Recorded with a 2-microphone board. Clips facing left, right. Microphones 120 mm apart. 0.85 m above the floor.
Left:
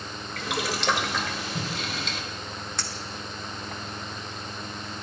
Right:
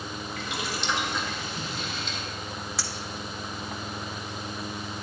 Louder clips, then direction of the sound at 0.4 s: Left 6 dB; 75° left (ahead or behind).